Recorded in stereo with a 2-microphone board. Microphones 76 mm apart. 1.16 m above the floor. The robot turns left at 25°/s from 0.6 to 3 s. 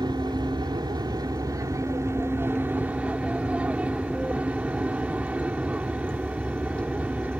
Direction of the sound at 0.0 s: 100° right.